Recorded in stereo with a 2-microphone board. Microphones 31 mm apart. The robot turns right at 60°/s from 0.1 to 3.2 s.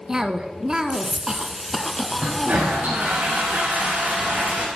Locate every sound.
0.1 s a cough: 20° right (ahead or behind), 1.1 m; by 3.2 s 20° left (ahead or behind), 1.1 m
2.2 s a toilet flushing: 130° right, 5 m; by 4.7 s 70° right, 5 m